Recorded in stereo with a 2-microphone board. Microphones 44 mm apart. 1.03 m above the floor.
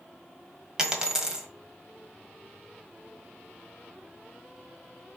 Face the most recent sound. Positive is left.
turn(degrees=-15)  # may be behind; listen again after turning